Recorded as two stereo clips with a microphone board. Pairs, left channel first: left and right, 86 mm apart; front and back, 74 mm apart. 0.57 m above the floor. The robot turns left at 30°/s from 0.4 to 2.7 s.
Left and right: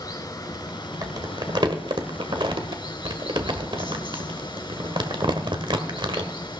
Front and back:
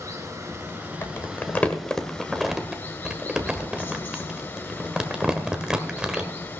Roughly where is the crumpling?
Ahead right.